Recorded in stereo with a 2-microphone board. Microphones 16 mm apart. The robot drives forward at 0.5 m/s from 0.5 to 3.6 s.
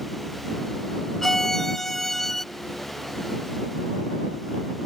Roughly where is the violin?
Left.